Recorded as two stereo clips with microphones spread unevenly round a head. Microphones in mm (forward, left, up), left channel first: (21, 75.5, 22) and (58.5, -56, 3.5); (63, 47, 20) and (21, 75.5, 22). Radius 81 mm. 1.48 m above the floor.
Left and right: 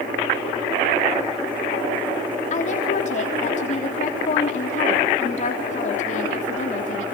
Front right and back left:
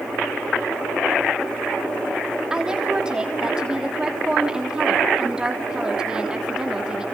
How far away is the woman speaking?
About 3.5 m.